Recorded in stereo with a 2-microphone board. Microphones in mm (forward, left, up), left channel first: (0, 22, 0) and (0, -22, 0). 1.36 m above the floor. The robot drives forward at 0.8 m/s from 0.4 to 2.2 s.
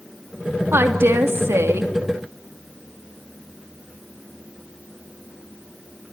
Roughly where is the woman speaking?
Right.